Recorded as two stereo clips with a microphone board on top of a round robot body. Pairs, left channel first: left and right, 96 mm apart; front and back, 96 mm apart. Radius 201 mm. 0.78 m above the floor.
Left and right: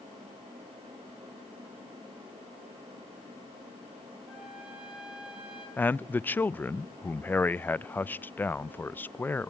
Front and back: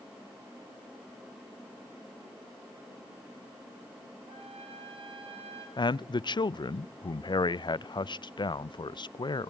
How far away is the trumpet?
About 6 m.